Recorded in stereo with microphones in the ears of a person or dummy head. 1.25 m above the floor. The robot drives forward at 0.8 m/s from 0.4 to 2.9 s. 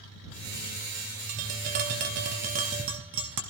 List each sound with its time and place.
1.3 s tapping: 45° right (ahead or behind), 1.4 m; by 3.4 s 35° right (ahead or behind), 1.7 m